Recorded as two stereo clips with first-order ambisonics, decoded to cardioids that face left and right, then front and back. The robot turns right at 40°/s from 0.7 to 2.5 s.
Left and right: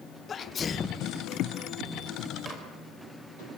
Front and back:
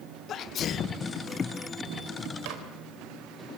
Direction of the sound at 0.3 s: 35° left.